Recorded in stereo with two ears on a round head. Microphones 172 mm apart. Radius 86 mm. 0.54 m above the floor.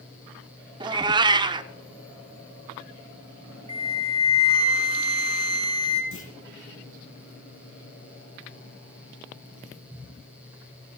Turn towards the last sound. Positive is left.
turn(degrees=70)  # may be behind; listen again after turning